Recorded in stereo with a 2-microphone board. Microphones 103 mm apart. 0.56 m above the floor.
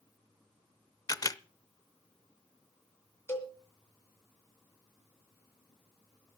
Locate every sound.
1.1 s a camera shutter: 35° left (ahead or behind), 0.5 m
3.3 s a cowbell: 25° left (ahead or behind), 2.5 m